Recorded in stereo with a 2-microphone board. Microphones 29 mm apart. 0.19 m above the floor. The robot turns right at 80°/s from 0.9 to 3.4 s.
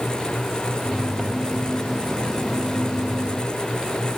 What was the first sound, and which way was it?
Only background noise.